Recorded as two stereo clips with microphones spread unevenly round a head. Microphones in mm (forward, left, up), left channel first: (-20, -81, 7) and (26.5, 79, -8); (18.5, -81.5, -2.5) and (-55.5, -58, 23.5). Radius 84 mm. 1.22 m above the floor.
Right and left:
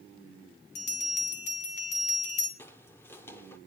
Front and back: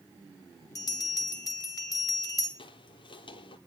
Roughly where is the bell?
Ahead right.